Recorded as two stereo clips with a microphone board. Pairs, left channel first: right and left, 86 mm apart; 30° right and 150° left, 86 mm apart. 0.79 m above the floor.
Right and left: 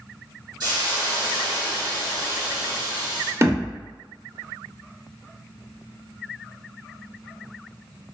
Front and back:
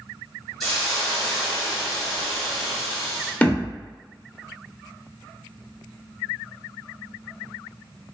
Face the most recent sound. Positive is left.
turn(degrees=40)